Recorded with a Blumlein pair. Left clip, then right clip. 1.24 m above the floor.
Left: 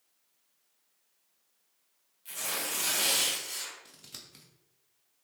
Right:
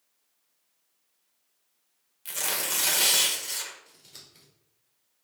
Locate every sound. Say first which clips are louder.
2.2 s tearing paper: right 5 dB; 30° right, 2 m
3.9 s scissors: left 2 dB; 35° left, 2.5 m